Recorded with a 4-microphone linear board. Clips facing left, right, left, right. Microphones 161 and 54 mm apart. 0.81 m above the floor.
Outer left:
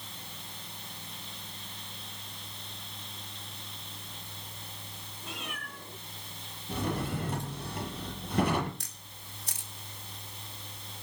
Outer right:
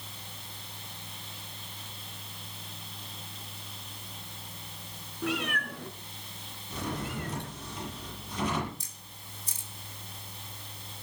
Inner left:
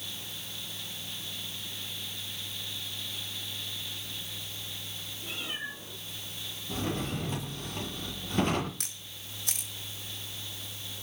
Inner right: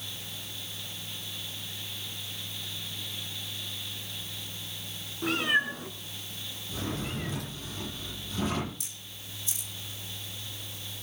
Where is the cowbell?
I don't hear a cowbell.